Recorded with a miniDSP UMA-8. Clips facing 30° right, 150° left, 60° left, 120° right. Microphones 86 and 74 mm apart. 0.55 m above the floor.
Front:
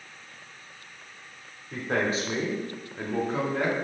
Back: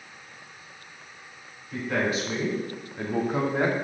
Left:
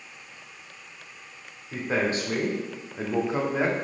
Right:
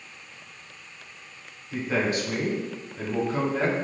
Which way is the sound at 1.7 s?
10° left.